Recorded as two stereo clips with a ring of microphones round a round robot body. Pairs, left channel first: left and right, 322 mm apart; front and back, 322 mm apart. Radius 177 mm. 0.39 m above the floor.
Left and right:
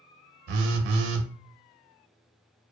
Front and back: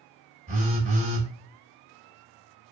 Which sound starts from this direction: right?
A phone buzzing, at 0.5 s.